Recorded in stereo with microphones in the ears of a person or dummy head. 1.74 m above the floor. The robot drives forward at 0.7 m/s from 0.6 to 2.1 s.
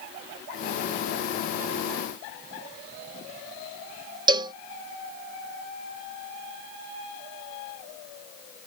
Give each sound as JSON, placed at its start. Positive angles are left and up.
{"t": 4.3, "sound": "a cowbell", "side_deg": -25}